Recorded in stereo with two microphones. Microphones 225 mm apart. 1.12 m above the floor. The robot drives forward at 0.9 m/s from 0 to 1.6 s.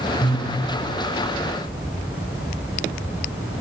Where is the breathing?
50° left (ahead or behind), 3 m.